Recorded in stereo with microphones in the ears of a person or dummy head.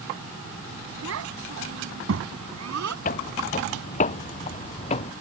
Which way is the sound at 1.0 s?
70° right (ahead or behind).